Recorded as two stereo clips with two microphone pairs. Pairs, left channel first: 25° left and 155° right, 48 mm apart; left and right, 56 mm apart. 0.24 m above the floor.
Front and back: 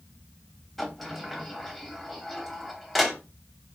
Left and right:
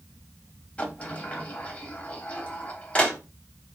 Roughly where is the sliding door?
Behind left.